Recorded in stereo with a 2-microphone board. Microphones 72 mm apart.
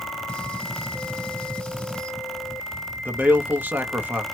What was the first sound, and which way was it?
A gunshot, 15° left (ahead or behind).